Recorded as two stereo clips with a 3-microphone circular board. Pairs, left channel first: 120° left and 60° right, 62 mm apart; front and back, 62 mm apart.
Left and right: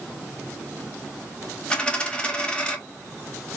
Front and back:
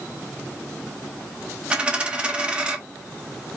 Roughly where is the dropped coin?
Behind left.